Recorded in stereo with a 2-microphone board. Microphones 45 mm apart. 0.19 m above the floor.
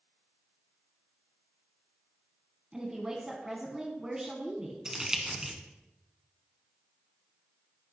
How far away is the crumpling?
About 1.7 m.